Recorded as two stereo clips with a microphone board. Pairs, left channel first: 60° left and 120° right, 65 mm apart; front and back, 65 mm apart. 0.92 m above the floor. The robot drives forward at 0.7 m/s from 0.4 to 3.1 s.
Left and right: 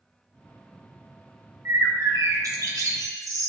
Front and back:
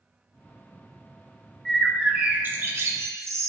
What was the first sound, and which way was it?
A bird, 80° right.